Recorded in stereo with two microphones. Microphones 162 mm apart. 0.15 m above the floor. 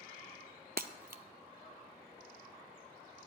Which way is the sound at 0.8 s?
75° right (ahead or behind).